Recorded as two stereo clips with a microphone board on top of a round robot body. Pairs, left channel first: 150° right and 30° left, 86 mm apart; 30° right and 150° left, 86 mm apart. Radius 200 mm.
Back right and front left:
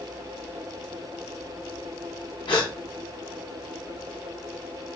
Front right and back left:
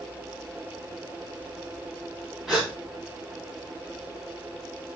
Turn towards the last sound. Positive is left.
turn(degrees=-115)